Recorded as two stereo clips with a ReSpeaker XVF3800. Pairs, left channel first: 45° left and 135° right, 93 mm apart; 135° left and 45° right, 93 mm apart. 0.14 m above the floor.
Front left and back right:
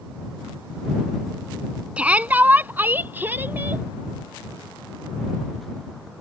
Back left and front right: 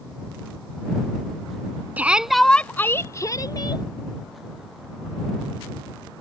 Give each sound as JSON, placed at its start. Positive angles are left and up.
{"t": 2.0, "sound": "a shout", "azimuth_deg": -80}